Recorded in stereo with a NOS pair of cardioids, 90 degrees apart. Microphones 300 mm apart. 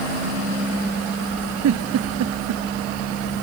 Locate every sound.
1.6 s a giggle: 65° right